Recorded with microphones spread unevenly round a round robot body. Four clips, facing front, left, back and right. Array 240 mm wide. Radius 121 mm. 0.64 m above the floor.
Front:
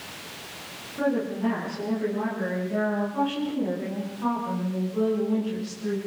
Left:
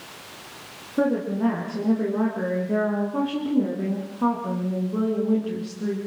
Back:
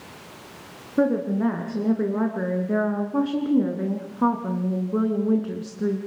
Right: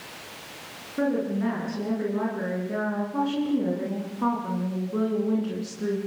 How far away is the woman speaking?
About 9.5 m.